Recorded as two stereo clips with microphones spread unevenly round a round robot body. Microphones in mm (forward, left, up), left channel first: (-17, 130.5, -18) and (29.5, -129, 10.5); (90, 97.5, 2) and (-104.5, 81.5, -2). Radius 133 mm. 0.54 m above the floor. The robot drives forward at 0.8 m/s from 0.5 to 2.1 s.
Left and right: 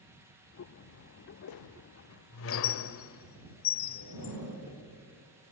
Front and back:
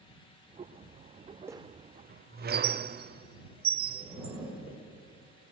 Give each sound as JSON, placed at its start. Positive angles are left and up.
{"t": 1.5, "sound": "a squeak", "azimuth_deg": 105, "distance_m": 0.5}
{"t": 4.0, "sound": "a zipper", "azimuth_deg": -110, "distance_m": 9.0}